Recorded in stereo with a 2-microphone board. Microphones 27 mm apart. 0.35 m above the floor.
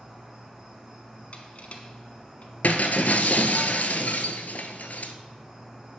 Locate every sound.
0.0 s an insect: 15° right (ahead or behind), 2.5 m
1.3 s crushing: 50° left (ahead or behind), 0.9 m
2.6 s breaking glass: 70° left (ahead or behind), 0.7 m